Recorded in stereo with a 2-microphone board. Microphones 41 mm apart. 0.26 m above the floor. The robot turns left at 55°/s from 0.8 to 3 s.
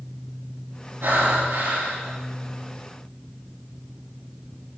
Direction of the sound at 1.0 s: 70° right.